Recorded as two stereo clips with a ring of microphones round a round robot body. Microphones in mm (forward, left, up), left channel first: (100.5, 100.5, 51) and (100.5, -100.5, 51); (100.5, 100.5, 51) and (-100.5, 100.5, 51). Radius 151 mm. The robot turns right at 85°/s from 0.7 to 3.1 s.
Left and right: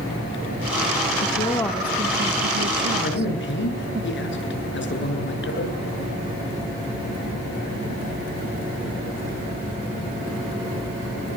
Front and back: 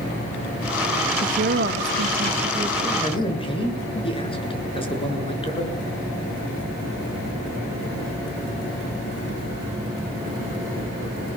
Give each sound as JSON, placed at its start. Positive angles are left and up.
{"t": 1.2, "sound": "a woman speaking", "azimuth_deg": 135, "distance_m": 1.0}
{"t": 3.0, "sound": "a man speaking", "azimuth_deg": 55, "distance_m": 7.0}